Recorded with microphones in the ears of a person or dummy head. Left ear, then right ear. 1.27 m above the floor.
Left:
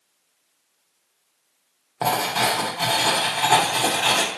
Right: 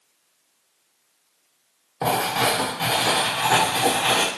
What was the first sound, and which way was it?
Writing, 45° left (ahead or behind).